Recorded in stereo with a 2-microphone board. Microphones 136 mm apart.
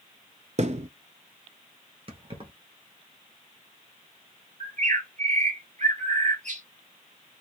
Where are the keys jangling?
40° right (ahead or behind), 1.5 m.